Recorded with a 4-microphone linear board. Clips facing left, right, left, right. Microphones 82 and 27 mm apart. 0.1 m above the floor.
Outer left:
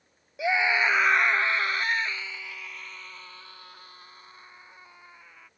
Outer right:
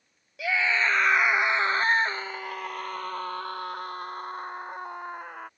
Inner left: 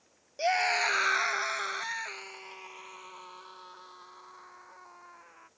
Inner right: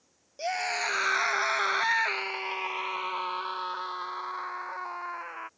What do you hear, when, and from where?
0.4 s a scream: 20° left (ahead or behind); by 5.5 s 55° right (ahead or behind)